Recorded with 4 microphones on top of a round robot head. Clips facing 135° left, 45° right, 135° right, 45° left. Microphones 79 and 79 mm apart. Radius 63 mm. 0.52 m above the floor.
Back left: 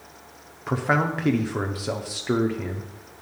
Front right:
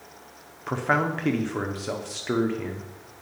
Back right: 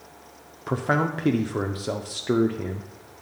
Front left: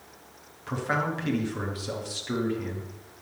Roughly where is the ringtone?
I don't hear a ringtone.